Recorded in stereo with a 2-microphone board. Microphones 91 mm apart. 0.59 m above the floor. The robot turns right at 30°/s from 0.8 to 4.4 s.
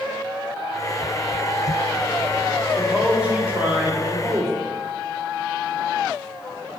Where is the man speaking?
170° right, 1.3 m; by 4.7 s 125° right, 1.3 m.